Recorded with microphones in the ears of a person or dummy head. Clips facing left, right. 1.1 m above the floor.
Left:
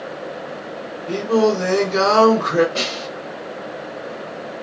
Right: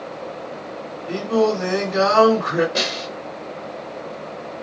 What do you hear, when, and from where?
1.1 s singing: 60° left (ahead or behind), 1.7 m
2.8 s a snare drum: 15° right (ahead or behind), 1.2 m